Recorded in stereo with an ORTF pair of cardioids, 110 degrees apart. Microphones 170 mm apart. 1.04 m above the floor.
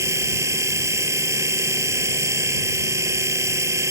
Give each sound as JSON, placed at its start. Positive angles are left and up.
{"t": 0.0, "sound": "a machine running", "azimuth_deg": -15}